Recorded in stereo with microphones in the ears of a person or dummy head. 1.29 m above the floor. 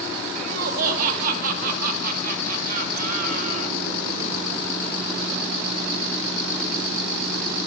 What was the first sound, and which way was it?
Laughter, 55° right (ahead or behind).